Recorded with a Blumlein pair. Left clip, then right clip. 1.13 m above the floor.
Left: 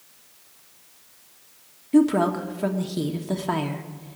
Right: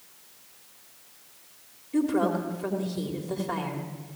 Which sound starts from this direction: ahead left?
A woman speaking, at 1.9 s.